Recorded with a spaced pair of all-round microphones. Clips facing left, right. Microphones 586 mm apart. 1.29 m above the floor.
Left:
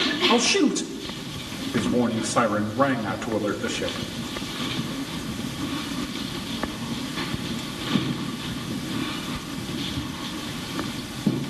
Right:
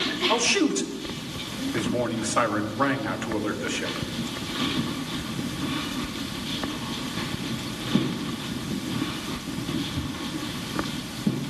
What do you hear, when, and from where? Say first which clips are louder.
0.3 s a man speaking: left 3 dB; 60° left (ahead or behind), 2.0 m